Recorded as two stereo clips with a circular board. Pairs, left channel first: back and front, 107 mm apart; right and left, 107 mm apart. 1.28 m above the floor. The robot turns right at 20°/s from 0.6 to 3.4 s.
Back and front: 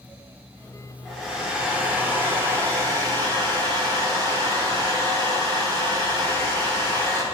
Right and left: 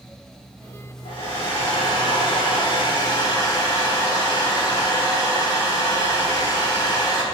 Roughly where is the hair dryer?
Right.